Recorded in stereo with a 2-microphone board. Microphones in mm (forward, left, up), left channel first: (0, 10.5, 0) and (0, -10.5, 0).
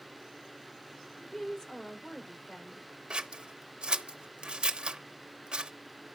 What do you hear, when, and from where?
1.2 s a woman speaking: 25° left (ahead or behind), 2 m
3.1 s scissors: 45° right (ahead or behind), 0.9 m